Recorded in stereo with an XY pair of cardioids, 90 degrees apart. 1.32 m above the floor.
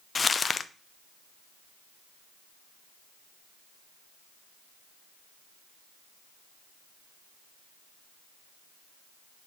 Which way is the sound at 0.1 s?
40° left.